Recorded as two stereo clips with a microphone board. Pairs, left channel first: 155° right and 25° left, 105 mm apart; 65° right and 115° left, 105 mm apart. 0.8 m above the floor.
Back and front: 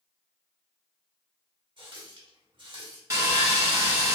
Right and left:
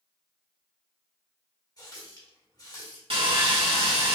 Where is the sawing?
85° left, 1.1 m.